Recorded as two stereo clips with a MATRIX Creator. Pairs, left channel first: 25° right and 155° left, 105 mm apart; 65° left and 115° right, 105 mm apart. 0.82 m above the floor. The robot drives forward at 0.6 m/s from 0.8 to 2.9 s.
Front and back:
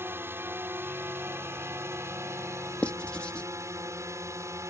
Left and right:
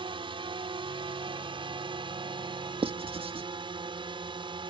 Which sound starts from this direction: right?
Writing, at 2.8 s.